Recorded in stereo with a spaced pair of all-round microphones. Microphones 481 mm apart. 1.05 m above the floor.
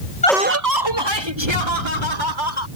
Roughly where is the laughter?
Centre.